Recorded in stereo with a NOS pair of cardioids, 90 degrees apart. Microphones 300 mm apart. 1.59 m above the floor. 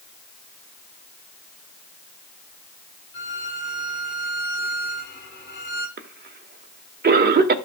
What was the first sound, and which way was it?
A violin, 35° left.